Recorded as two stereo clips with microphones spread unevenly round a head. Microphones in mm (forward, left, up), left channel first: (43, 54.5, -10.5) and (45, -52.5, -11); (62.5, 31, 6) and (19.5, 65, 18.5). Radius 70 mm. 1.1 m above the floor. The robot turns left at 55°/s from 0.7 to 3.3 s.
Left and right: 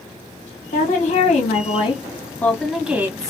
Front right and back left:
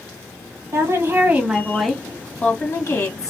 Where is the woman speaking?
110° left, 1.2 m; by 3.3 s 35° right, 1.2 m.